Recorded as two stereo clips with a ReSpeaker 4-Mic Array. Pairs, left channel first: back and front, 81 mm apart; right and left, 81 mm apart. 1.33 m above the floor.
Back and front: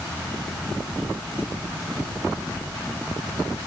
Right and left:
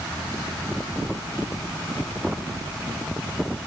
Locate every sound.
Only background noise.